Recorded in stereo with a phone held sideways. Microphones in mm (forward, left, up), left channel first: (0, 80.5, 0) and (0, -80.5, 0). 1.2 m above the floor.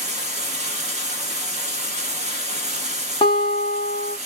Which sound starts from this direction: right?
Running water, at 0.0 s.